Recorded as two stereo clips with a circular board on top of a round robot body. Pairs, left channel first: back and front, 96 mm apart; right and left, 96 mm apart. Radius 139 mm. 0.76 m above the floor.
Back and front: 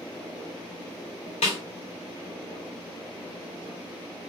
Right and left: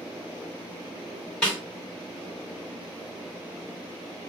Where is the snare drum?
170° right, 0.5 m.